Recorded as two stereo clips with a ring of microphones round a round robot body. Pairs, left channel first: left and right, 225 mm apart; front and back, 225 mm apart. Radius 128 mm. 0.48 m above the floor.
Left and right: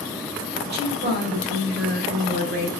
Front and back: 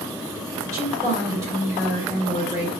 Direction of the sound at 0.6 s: 110° right.